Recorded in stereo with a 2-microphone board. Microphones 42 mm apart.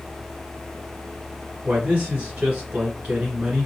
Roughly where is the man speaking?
Right.